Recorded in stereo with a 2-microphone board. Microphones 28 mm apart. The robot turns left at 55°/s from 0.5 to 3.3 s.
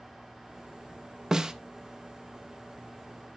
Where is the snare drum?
25° right (ahead or behind), 0.7 m.